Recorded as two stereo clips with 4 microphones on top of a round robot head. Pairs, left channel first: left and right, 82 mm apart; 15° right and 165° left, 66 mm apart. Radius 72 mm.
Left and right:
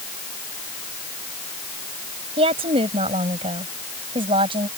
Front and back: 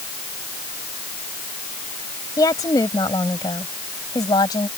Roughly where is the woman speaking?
Ahead right.